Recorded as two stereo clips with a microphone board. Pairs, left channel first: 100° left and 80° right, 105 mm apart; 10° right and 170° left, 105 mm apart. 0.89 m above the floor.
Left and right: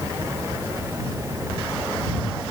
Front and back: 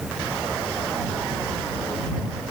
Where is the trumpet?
No trumpet in this recording.